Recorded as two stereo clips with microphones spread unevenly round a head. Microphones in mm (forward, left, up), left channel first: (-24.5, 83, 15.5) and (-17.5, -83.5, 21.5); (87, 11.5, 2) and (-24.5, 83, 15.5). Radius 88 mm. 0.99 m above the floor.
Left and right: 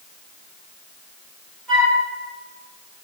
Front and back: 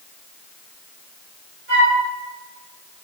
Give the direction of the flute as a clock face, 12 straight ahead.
6 o'clock.